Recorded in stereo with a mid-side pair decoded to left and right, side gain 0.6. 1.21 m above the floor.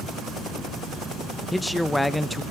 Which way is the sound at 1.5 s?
10° left.